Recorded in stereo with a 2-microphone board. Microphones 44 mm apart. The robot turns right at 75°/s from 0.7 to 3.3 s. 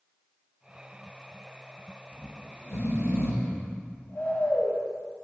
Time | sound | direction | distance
2.1 | snoring | 45° left | 1.4 m